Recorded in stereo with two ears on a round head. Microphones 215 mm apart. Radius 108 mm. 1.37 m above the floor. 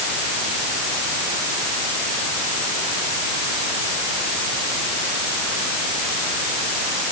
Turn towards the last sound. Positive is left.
No sound to turn to.